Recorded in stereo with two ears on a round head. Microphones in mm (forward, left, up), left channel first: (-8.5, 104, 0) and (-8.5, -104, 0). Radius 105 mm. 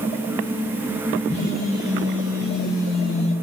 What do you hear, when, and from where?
1.3 s a phone buzzing: 50° left (ahead or behind), 3.5 m